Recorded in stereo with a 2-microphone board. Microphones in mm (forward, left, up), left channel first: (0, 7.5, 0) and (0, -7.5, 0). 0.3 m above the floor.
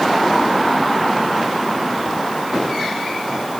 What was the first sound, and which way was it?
Only background noise.